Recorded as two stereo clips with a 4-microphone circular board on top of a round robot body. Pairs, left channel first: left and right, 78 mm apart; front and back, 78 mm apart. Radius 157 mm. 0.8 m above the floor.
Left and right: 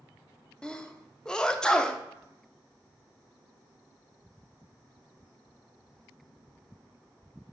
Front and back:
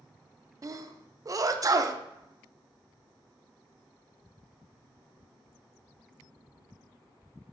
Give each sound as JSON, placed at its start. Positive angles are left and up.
{"t": 0.6, "sound": "a sneeze", "azimuth_deg": 165, "distance_m": 0.6}